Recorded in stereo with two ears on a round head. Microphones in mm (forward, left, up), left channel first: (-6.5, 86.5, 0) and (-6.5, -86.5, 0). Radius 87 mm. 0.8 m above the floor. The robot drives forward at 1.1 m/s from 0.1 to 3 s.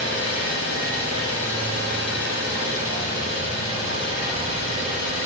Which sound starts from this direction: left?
An engine running, at 0.0 s.